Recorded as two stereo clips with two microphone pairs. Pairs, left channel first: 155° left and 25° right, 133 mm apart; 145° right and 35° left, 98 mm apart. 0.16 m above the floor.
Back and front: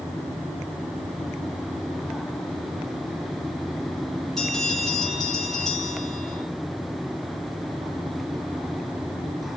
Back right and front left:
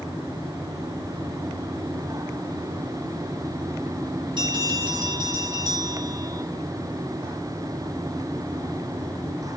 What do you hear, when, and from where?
4.4 s a bell: 70° left, 4 m